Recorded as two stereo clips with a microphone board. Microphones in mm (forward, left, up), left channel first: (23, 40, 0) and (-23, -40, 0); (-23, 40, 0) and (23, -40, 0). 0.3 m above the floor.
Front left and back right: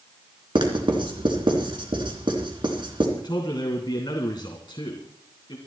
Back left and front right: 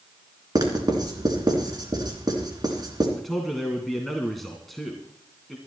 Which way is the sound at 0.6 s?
100° right.